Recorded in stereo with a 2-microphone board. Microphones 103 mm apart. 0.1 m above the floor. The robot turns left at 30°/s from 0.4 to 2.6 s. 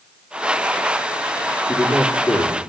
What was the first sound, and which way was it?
A man speaking, 10° left (ahead or behind).